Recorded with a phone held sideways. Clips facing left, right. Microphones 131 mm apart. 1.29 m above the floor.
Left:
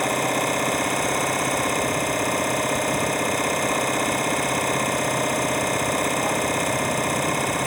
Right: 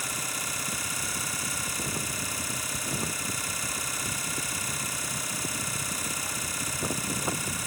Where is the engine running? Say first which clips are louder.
Left 16 dB; 65° left (ahead or behind).